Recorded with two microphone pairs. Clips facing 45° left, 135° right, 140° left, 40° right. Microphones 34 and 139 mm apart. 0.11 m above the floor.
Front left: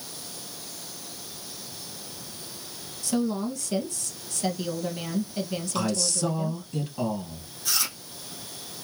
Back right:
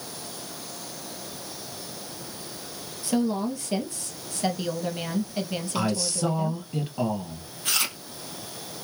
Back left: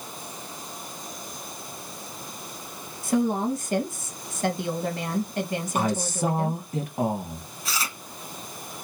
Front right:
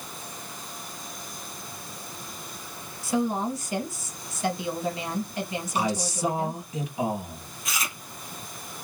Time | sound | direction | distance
3.0 | a woman speaking | 165° left | 2 m
5.8 | a man speaking | 160° left | 2 m
7.7 | chewing | 170° right | 1.6 m